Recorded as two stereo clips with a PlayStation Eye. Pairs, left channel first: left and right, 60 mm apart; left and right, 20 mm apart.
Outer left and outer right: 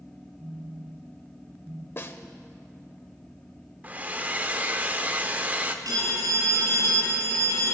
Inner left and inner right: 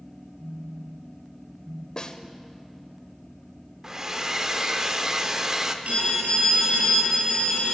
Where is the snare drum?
40° left (ahead or behind), 0.7 m.